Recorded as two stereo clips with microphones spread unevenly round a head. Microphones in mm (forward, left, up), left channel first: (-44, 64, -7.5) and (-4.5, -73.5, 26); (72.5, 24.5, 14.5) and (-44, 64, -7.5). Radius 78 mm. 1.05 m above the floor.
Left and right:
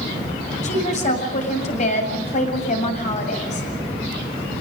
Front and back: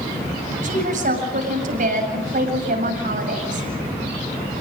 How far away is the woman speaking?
About 7.5 m.